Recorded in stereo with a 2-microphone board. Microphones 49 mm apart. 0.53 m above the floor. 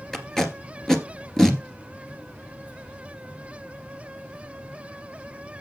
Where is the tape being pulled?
10° left (ahead or behind), 1.8 m.